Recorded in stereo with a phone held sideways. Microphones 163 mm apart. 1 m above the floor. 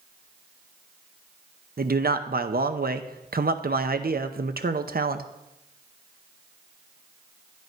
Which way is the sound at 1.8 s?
70° right (ahead or behind).